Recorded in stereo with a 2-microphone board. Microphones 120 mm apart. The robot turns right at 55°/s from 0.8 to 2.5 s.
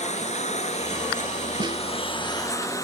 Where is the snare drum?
45° right (ahead or behind); by 1.8 s 35° right (ahead or behind).